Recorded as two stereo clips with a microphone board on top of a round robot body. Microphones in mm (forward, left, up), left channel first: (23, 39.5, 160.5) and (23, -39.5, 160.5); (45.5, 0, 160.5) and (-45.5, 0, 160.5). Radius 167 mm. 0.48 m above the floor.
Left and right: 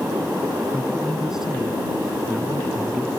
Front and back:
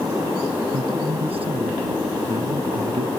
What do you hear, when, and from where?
0.7 s a man speaking: 175° right